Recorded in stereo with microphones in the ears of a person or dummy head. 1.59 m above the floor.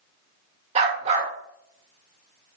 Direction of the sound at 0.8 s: 35° right (ahead or behind).